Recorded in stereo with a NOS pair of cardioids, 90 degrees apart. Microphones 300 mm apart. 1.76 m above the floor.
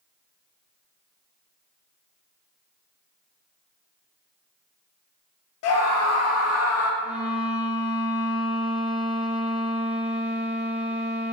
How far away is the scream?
About 0.6 m.